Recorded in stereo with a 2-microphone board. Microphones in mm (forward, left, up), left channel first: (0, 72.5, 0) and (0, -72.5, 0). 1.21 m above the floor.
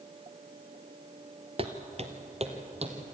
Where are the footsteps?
40° right (ahead or behind), 1.5 m; by 3.0 s 45° right (ahead or behind), 3 m.